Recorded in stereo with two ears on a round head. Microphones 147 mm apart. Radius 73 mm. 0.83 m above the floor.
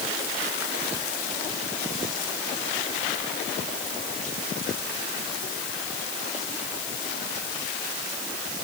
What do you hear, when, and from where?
Only background noise.